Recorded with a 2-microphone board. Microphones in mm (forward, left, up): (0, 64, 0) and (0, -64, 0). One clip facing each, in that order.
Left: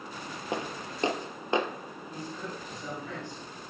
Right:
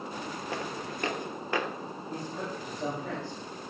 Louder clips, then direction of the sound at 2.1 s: Right 2 dB; 85° right.